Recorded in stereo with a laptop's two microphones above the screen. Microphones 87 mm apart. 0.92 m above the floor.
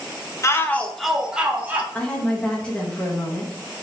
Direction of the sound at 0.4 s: 35° left (ahead or behind).